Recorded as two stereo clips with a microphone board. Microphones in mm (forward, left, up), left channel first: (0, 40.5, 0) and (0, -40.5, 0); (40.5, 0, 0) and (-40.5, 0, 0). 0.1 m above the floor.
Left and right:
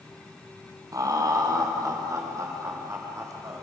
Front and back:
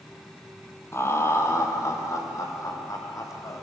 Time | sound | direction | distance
0.9 | laughter | 55° right | 2.5 m